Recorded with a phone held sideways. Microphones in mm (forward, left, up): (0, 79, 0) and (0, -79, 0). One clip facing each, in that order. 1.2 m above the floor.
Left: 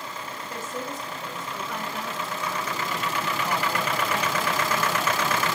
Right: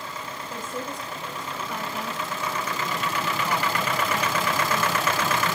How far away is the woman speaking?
About 8 m.